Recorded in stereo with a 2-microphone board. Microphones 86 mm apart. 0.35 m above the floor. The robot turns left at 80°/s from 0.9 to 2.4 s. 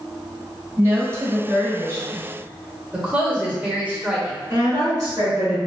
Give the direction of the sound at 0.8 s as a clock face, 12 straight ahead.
1 o'clock.